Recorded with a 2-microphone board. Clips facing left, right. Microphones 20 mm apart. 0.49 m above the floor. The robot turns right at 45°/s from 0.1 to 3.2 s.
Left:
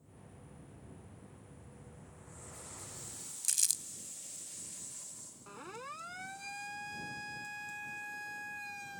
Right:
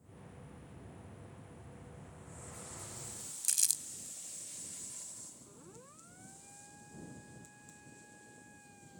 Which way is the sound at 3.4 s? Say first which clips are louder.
Even; centre (ahead or behind).